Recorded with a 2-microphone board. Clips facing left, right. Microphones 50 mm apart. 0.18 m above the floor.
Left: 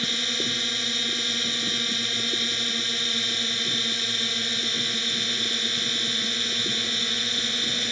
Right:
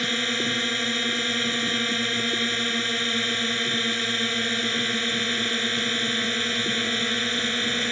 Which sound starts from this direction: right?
A drone, at 0.0 s.